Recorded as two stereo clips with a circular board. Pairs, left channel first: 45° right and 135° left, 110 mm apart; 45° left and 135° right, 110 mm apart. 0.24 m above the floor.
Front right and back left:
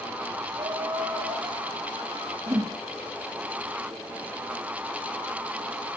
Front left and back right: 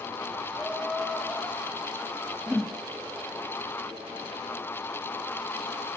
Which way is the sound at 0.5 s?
140° left.